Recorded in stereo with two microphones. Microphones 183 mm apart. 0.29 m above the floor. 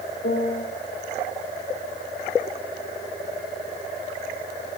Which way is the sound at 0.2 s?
55° left (ahead or behind).